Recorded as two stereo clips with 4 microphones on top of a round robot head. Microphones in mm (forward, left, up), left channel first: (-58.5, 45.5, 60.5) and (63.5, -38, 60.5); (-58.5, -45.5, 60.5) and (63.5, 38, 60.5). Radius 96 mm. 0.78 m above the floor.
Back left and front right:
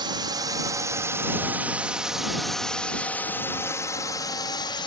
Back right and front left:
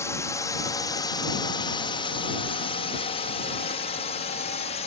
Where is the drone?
80° right; by 4.9 s 165° right.